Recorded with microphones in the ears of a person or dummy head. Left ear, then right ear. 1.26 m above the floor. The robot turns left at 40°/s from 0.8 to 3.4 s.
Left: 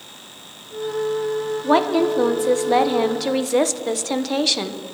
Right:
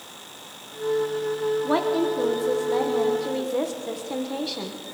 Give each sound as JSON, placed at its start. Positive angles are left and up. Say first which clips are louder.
{"t": 1.6, "sound": "a woman speaking", "louder": "left 9 dB", "azimuth_deg": 160, "distance_m": 1.1}